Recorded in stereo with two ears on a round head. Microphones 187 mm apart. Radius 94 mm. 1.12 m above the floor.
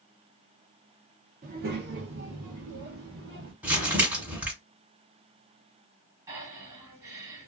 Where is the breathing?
15° right (ahead or behind), 1.1 m.